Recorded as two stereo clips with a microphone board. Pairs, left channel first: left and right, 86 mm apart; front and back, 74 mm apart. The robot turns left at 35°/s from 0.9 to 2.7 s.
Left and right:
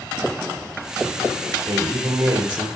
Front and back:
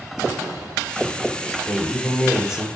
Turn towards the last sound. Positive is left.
turn(degrees=-105)